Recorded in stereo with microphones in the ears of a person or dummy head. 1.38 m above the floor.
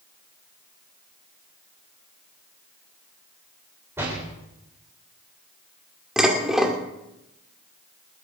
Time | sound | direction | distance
4.0 | a door slam | 15° right (ahead or behind) | 4 m
6.2 | dishes clattering | centre (ahead or behind) | 2.5 m